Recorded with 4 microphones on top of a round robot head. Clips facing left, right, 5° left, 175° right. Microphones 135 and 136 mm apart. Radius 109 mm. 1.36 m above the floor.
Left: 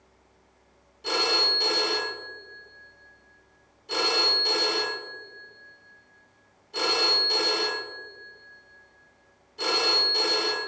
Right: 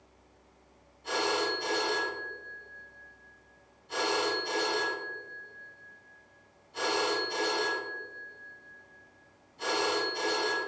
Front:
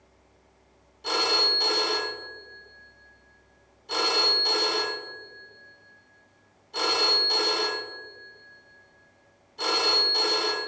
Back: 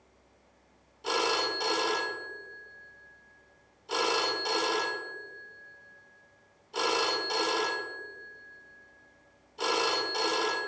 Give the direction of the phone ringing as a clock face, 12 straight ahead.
9 o'clock.